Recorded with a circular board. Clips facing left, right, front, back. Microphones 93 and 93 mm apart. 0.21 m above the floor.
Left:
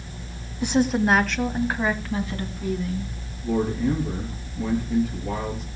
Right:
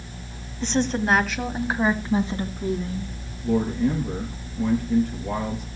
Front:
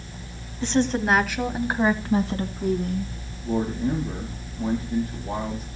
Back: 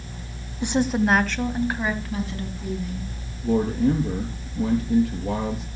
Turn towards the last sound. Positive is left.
turn(degrees=-170)